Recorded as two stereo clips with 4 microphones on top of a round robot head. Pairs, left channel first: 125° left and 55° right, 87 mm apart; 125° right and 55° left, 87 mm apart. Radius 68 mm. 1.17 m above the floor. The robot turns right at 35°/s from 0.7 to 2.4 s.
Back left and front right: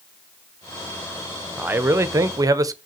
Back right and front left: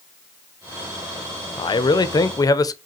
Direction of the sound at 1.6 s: 120° right.